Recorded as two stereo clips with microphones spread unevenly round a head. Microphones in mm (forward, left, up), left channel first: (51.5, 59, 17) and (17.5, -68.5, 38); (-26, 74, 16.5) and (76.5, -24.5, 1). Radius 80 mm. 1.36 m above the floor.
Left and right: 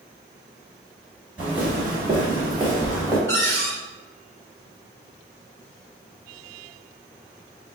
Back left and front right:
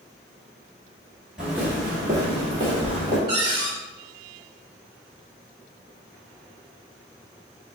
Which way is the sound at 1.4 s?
135° right.